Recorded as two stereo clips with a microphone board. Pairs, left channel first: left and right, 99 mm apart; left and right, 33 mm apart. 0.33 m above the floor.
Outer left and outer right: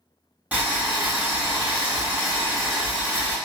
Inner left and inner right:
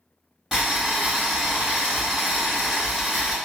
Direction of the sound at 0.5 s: 15° right (ahead or behind).